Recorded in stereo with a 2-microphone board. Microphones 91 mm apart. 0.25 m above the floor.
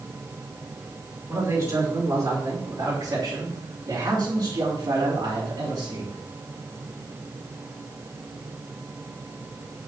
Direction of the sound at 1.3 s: 30° right (ahead or behind).